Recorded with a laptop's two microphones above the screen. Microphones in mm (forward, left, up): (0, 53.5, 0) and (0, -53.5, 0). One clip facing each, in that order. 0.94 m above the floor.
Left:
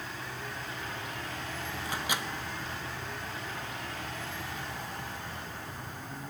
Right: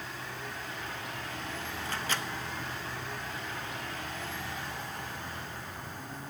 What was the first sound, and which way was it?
A microwave, 15° left (ahead or behind).